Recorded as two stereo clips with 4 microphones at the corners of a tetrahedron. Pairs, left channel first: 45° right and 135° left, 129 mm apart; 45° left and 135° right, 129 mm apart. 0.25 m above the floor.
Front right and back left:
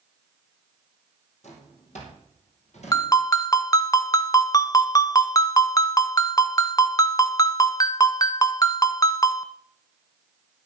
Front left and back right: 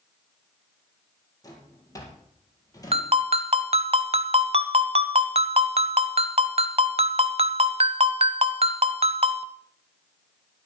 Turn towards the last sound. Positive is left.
turn(degrees=-100)